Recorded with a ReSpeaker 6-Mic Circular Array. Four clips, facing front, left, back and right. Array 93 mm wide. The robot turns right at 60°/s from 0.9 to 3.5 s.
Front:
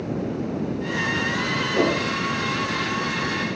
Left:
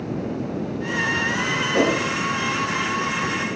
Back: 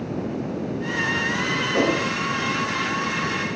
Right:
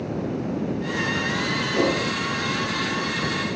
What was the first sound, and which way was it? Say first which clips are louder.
A whoosh: left 2 dB, even; 125° left.